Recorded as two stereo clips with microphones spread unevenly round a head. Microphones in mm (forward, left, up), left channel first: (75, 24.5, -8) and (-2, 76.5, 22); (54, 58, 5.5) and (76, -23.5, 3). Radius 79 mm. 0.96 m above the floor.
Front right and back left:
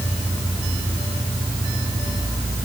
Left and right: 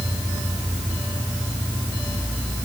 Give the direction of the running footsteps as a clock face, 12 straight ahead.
No running footsteps in this recording.